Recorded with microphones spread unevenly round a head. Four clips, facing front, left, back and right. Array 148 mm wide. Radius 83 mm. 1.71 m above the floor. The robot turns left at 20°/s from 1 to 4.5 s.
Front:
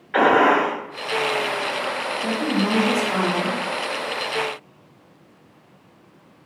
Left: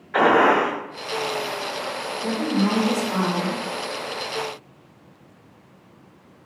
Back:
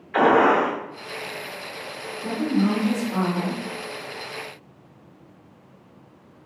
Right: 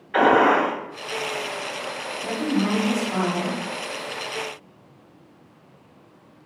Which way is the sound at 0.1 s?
15° left.